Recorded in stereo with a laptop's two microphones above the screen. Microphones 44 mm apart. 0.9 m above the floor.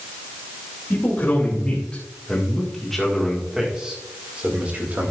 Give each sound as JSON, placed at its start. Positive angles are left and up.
{"t": 0.9, "sound": "a man speaking", "side_deg": 40, "distance_m": 2.5}